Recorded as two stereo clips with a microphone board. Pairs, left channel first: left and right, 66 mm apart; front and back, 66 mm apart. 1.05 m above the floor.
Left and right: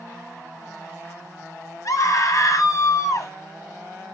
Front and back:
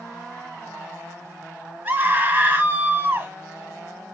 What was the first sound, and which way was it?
A scream, 115° left.